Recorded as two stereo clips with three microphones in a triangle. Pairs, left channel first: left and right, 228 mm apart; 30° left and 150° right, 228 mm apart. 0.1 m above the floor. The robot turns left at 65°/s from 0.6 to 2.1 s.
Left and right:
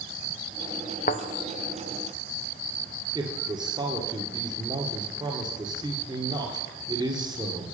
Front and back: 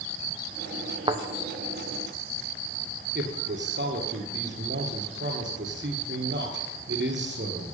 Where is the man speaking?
160° right, 2.0 m.